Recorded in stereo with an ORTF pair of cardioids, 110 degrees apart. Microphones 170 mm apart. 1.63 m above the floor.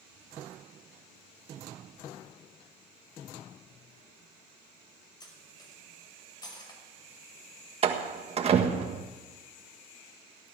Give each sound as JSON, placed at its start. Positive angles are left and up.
{"t": 5.2, "sound": "cutlery clinking", "azimuth_deg": 25, "distance_m": 5.5}
{"t": 7.8, "sound": "a door slam", "azimuth_deg": -40, "distance_m": 1.6}